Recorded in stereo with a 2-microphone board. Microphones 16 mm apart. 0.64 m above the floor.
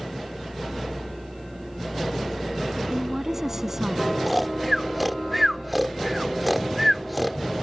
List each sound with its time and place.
2.9 s a woman speaking: 25° right (ahead or behind)
4.3 s snoring: centre (ahead or behind)